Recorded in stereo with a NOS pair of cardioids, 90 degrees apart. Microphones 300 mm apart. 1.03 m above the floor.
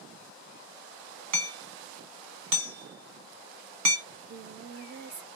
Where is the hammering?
70° right, 1.1 m.